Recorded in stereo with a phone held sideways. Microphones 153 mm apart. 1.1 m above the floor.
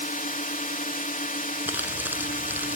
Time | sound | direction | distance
0.0 | a drone | 60° left (ahead or behind) | ?
1.7 | crumpling | 10° right (ahead or behind) | ?